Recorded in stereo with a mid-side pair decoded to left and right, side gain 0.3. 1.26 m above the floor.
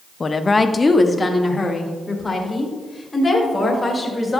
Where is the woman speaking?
40° left, 0.7 m; by 4.4 s 25° left, 4 m.